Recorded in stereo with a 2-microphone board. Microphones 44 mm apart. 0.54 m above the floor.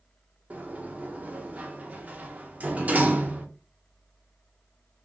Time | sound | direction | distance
0.5 | a sliding door | 35° right (ahead or behind) | 0.9 m